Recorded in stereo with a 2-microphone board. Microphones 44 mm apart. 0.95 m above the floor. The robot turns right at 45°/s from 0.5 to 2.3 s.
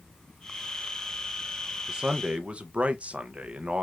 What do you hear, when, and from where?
1.9 s a man speaking: 15° right (ahead or behind), 0.5 m; by 3.8 s 30° right (ahead or behind), 0.5 m